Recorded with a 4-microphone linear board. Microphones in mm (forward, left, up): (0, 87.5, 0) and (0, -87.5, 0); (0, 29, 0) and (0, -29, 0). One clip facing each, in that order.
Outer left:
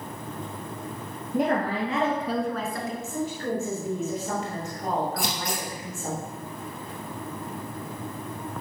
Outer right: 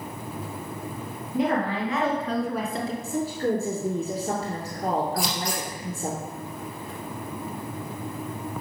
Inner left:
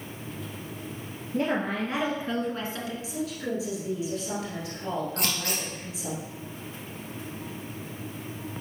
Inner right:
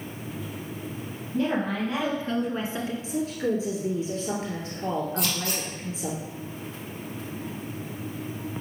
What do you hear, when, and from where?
1.3 s a woman speaking: 50° left (ahead or behind), 2 m; by 2.9 s 35° right (ahead or behind), 1.4 m
3.0 s a woman speaking: 35° right (ahead or behind), 1.7 m
5.2 s scissors: 55° left (ahead or behind), 2 m